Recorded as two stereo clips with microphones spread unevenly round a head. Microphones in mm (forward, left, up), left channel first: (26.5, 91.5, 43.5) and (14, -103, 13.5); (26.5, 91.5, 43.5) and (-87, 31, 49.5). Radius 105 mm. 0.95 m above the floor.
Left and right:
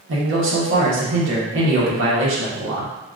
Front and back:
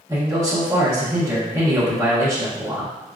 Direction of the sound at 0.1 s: 80° right.